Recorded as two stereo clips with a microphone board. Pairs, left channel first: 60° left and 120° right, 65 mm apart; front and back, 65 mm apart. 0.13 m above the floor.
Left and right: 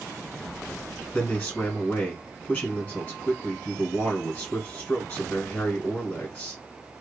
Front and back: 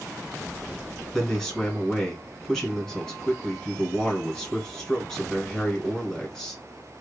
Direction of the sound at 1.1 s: 70° left.